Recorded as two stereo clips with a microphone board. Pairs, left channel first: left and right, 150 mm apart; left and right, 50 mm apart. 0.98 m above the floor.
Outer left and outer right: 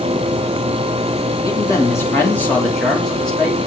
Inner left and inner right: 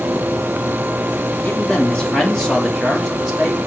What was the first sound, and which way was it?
A man speaking, 25° left (ahead or behind).